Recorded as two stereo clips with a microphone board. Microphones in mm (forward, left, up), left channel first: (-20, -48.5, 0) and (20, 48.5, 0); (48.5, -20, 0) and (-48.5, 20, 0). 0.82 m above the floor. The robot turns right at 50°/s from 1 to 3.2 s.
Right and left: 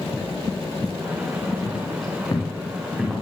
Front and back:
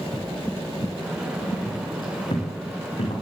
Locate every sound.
1.6 s footsteps: 90° right, 9.5 m; by 3.1 s 5° right, 10 m